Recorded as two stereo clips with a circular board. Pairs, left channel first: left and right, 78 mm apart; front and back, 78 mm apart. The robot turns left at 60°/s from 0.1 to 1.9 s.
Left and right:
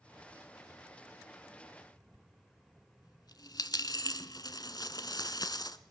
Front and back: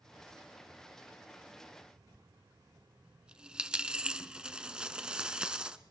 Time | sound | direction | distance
2.1 | a dropped coin | 105° left | 0.9 m